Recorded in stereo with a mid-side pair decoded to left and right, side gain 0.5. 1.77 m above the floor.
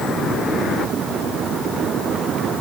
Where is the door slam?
I don't hear a door slam.